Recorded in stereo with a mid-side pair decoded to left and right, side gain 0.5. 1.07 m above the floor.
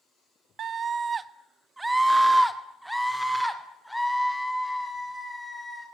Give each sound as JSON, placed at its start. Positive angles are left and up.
{"t": 0.6, "sound": "a scream", "azimuth_deg": -55, "distance_m": 1.2}